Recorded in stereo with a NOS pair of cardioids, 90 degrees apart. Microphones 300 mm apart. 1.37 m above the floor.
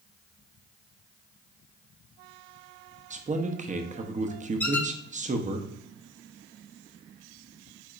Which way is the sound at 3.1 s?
25° right.